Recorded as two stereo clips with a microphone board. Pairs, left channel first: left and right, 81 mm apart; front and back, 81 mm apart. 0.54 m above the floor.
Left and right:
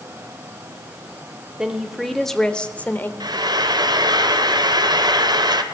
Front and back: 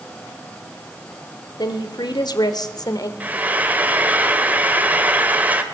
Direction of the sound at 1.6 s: 10° right.